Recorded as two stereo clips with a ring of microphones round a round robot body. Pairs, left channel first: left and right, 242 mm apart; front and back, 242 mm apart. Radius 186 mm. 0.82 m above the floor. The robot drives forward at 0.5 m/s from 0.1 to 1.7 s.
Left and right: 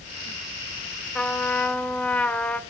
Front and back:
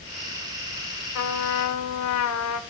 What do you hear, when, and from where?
1.1 s a trumpet: 5° left, 1.1 m